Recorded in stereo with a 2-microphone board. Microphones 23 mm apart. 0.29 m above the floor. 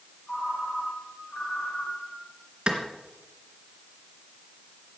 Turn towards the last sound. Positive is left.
turn(degrees=-35)  # may be behind; listen again after turning